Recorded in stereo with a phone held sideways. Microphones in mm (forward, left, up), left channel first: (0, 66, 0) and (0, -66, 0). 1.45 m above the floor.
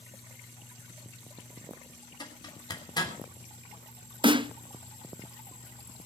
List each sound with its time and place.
2.2 s a zipper: 35° left (ahead or behind), 3.5 m
4.2 s a snare drum: 40° right (ahead or behind), 0.5 m